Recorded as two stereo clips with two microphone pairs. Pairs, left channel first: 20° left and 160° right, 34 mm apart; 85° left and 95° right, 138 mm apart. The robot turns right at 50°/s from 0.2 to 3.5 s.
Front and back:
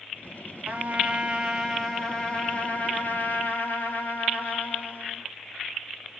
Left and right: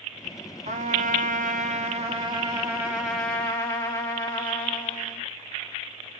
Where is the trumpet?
130° right, 1.8 m; by 5.2 s 10° left, 1.8 m.